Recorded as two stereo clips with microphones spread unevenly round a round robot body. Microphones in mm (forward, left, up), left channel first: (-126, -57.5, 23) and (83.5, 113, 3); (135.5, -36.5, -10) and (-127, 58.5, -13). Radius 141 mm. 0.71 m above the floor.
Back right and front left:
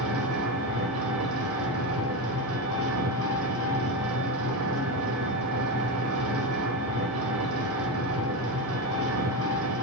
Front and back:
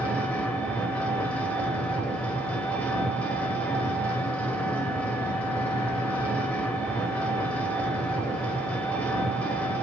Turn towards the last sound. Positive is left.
turn(degrees=65)